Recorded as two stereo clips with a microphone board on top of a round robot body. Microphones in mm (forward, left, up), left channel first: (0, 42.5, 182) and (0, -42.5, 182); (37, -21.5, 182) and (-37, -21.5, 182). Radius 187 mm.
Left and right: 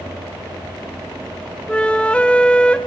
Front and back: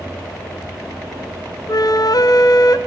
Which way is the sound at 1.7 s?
15° left.